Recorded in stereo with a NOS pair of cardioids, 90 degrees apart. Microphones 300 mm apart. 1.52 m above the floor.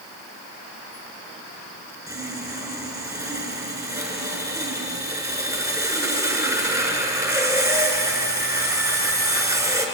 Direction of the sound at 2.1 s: 10° right.